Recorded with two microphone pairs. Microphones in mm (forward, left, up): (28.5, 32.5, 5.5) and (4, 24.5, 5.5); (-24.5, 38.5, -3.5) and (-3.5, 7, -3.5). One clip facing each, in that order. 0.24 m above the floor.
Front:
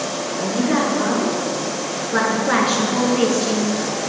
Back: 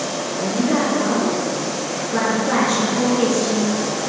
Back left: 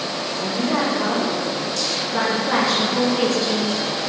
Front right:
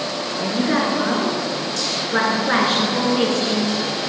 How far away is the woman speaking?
About 3.5 m.